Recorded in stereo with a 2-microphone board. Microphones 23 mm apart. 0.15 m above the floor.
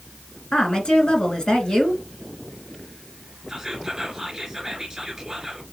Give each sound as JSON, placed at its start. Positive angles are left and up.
{"t": 0.5, "sound": "a woman speaking", "side_deg": 40, "distance_m": 1.8}
{"t": 3.5, "sound": "whispering", "side_deg": -15, "distance_m": 1.5}